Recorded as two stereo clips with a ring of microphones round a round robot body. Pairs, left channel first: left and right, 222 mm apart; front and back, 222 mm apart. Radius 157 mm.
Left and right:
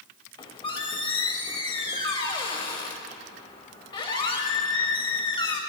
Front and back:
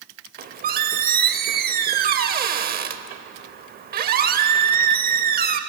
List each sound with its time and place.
0.4 s a squeak: 155° left, 0.8 m